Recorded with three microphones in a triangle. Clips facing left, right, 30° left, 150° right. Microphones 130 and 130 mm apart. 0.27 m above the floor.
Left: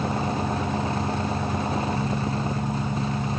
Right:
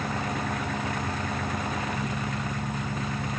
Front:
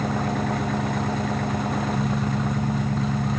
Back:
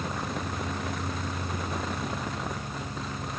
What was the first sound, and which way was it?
An engine running, 20° left.